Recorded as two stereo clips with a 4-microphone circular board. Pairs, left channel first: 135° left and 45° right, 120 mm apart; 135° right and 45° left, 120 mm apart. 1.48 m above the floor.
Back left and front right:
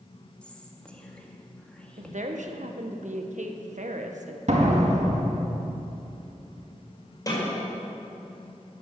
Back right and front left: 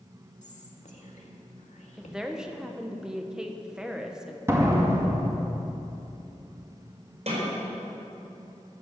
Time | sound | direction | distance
0.4 | whispering | 145° right | 2 m
2.0 | a woman speaking | 40° right | 1.3 m
4.5 | a door slam | 20° right | 2.0 m
7.3 | a snare drum | 75° left | 5.5 m